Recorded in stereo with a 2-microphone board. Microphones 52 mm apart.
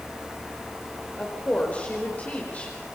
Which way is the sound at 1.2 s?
35° left (ahead or behind).